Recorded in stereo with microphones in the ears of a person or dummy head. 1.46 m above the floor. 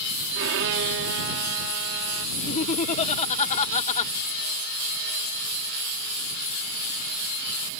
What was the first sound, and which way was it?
A violin, 60° right (ahead or behind).